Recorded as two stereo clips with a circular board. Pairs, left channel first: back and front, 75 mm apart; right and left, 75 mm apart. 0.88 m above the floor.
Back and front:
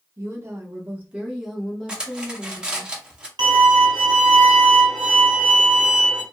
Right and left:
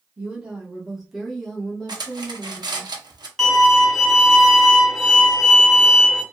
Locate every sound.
0.2 s a woman speaking: 25° left, 1.0 m; by 2.9 s 145° right, 1.1 m
1.9 s cutlery clinking: 80° left, 0.7 m
3.4 s a violin: 5° right, 0.8 m